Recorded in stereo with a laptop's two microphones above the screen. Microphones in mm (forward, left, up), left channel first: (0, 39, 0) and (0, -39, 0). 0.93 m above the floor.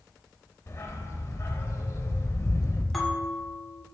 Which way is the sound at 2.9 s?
5° left (ahead or behind).